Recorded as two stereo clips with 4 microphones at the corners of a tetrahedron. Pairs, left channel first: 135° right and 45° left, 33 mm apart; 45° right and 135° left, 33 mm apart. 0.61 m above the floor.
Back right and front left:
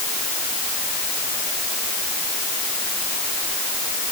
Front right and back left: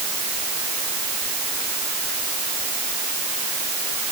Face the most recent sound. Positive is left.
No sound to turn to.